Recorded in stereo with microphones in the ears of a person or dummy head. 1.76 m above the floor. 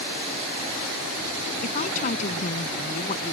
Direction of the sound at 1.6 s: 45° left (ahead or behind).